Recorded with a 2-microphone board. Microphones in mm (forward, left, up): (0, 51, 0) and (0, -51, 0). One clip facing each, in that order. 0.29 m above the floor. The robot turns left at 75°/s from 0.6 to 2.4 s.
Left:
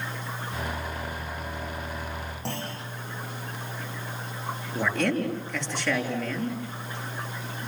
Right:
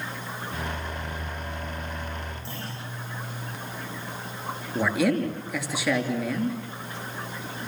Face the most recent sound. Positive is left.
turn(degrees=-5)  # may be behind; listen again after turning